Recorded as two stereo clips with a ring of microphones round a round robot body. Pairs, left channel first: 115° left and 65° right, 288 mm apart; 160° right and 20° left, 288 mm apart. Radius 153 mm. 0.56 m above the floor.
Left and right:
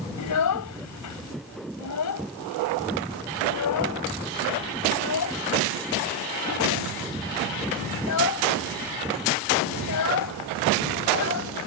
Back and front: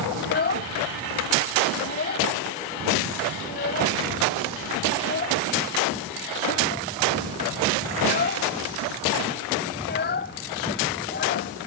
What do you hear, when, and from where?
0.2 s a child speaking: 145° left